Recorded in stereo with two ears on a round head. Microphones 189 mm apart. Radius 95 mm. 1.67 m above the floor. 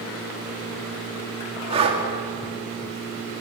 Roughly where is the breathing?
Right.